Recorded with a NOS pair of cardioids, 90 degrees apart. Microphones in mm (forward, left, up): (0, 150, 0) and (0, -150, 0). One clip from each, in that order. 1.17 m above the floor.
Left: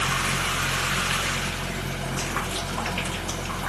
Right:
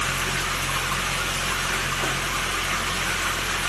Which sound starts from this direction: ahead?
A fan, at 0.0 s.